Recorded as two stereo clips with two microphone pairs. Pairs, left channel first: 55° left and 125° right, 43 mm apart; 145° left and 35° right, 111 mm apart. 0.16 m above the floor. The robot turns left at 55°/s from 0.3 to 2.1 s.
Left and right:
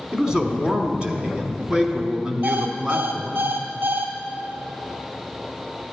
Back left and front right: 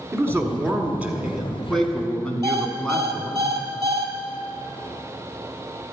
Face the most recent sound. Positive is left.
turn(degrees=-100)